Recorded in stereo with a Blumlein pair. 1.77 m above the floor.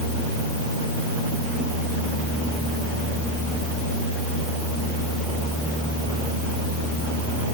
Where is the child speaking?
No child speaking in this recording.